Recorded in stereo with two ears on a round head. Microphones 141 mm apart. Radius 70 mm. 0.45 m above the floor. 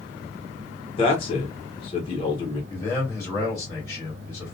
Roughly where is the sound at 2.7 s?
Centre.